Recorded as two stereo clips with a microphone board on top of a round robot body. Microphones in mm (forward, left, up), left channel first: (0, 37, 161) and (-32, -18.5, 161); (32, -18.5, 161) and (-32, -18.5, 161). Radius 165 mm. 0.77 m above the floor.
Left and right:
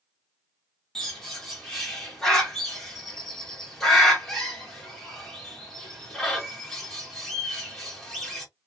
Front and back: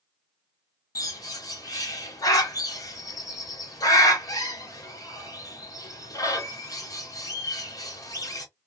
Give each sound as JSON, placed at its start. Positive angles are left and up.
{"t": 0.9, "sound": "a bird", "azimuth_deg": -25, "distance_m": 1.5}